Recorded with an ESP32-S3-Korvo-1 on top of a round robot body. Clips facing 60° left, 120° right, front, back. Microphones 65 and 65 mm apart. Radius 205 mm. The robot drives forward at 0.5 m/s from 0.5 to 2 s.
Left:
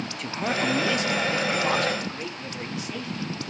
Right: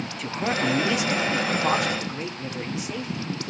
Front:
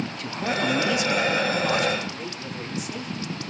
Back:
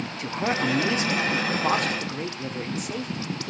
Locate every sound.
0.2 s a man speaking: 155° left, 1.0 m; by 3.5 s 170° left, 1.5 m